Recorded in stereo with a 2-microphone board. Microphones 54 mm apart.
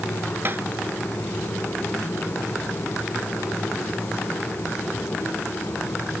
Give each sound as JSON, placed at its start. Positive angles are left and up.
{"t": 0.5, "sound": "tapping", "side_deg": -40}